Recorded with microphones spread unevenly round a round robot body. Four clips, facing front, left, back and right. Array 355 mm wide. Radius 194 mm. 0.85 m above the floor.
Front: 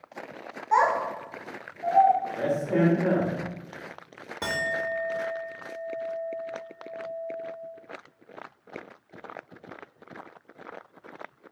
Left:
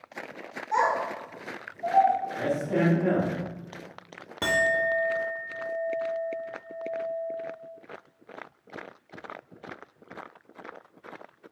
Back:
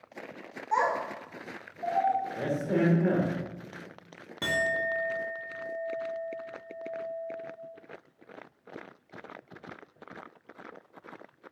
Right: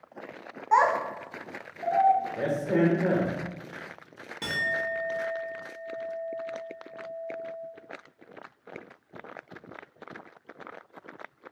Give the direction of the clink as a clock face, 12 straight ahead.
10 o'clock.